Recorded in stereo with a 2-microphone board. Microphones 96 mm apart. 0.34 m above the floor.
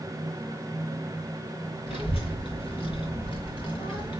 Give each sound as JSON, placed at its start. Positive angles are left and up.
{"t": 1.9, "sound": "a child speaking", "side_deg": 70, "distance_m": 3.0}